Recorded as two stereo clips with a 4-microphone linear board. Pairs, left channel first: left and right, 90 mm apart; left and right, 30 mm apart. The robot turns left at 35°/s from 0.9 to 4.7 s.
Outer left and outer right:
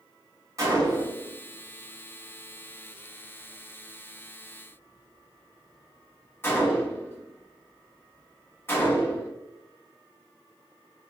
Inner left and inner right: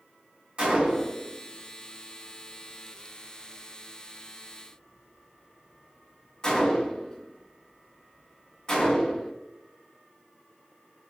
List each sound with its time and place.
0.6 s a gunshot: 35° right (ahead or behind), 1.6 m; by 9.3 s 25° left (ahead or behind), 1.6 m